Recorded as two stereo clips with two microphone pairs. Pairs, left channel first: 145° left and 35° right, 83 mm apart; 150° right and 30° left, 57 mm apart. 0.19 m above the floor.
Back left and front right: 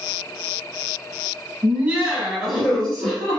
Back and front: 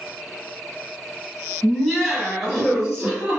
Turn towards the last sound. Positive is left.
turn(degrees=90)